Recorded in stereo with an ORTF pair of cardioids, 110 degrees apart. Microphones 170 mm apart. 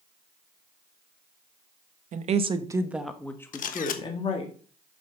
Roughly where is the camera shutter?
Ahead left.